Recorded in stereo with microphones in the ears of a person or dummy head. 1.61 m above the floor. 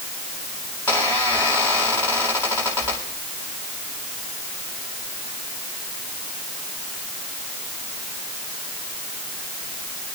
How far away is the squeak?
About 4.5 m.